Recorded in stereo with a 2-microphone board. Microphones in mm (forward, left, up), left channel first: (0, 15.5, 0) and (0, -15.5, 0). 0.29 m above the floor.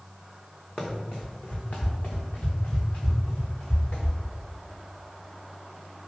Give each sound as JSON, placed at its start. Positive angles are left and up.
{"t": 0.8, "sound": "running footsteps", "side_deg": 25, "distance_m": 1.1}